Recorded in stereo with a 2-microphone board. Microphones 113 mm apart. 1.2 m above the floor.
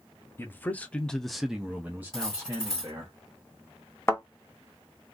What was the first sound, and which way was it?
A man speaking, 20° left (ahead or behind).